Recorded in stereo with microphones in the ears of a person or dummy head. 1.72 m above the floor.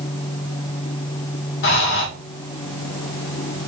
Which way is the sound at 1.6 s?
60° left (ahead or behind).